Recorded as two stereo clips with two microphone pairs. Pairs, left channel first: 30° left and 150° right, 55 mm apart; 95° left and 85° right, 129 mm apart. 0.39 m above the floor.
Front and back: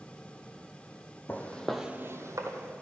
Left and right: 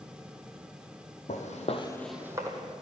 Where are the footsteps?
90° left, 1.1 m; by 2.7 s 140° right, 1.3 m.